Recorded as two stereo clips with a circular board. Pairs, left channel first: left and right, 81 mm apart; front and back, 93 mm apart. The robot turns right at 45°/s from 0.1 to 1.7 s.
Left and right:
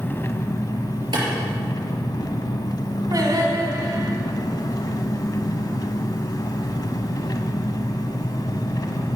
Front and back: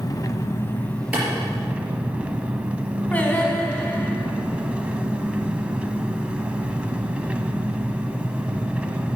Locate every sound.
0.0 s an engine running: 35° left, 0.8 m; by 9.2 s 105° left, 0.8 m
1.1 s a clap: 105° right, 4.5 m; by 1.2 s 100° right, 4.5 m
3.1 s singing: 70° right, 1.8 m